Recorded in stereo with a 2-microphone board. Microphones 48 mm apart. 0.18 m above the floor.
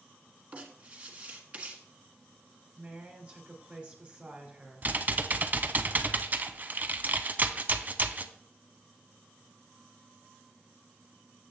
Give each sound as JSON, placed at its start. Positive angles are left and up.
{"t": 0.5, "sound": "writing", "side_deg": -30, "distance_m": 1.2}
{"t": 2.8, "sound": "a woman speaking", "side_deg": -25, "distance_m": 2.5}
{"t": 4.8, "sound": "typing on a keyboard", "side_deg": -35, "distance_m": 0.5}